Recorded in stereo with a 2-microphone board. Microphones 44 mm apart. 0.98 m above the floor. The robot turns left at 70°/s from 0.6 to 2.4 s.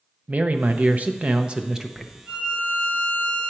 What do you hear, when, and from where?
0.3 s a man speaking: 80° right, 0.5 m; by 2.2 s 175° left, 0.5 m
2.3 s a violin: 25° right (ahead or behind), 4.5 m; by 3.5 s 15° right (ahead or behind), 4.5 m